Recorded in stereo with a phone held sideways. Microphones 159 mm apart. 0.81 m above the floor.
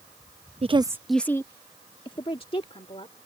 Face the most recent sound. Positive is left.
turn(degrees=40)  # may be behind; listen again after turning